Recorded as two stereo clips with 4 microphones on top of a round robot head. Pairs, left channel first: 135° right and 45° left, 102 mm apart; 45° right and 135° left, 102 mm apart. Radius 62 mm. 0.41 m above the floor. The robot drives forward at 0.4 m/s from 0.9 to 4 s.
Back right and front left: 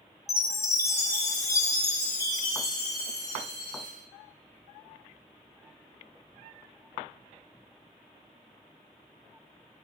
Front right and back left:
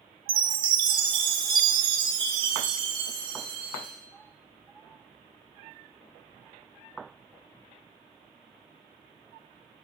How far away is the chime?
About 0.8 m.